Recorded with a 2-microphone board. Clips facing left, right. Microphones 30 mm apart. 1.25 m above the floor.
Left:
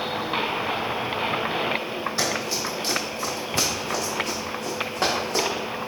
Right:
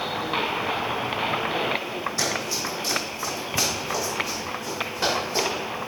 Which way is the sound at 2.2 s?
30° left (ahead or behind).